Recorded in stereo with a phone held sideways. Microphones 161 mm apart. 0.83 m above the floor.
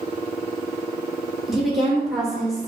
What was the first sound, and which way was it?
A woman speaking, centre (ahead or behind).